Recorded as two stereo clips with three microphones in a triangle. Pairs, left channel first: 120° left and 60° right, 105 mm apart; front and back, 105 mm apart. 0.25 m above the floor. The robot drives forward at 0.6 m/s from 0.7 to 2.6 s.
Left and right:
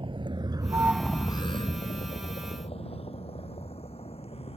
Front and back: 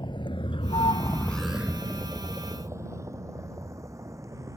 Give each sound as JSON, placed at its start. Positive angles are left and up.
{"t": 0.0, "sound": "a vehicle", "azimuth_deg": -35}